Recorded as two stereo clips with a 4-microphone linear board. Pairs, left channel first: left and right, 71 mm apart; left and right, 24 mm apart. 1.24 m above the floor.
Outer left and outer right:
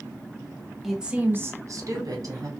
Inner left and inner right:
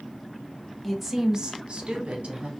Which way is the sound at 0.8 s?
5° right (ahead or behind).